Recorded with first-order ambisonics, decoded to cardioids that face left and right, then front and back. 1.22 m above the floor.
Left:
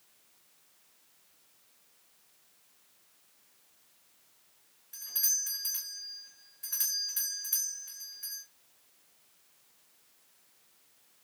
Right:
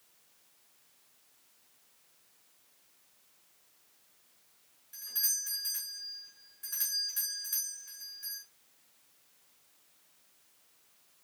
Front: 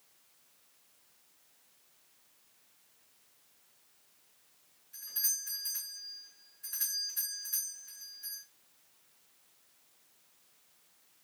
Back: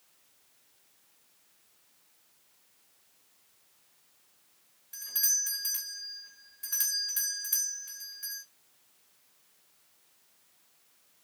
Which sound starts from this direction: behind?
A doorbell, at 4.9 s.